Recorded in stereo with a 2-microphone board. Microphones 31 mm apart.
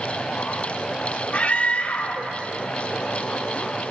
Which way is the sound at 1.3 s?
55° left (ahead or behind).